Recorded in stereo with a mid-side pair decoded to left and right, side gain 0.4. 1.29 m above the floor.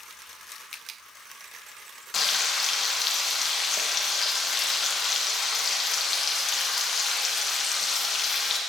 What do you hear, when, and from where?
2.1 s frying: 55° left, 1.2 m